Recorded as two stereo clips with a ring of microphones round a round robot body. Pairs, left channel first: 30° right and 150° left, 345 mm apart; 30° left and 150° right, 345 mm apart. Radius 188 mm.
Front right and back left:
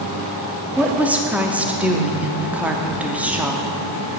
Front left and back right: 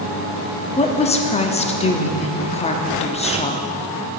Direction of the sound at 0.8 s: 70° left.